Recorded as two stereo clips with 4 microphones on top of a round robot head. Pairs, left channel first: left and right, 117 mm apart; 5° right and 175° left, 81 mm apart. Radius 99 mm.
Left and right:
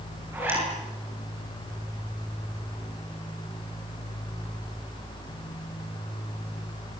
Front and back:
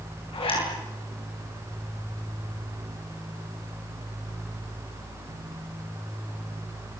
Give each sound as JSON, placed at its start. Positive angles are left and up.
{"t": 0.3, "sound": "a zipper", "azimuth_deg": -15, "distance_m": 9.0}